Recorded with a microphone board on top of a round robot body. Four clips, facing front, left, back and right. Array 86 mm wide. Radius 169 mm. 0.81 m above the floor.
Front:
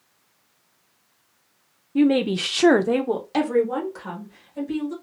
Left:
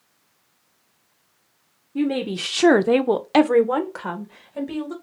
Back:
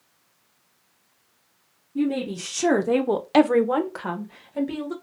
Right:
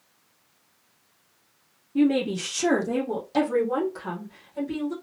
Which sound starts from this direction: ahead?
A woman speaking, at 1.9 s.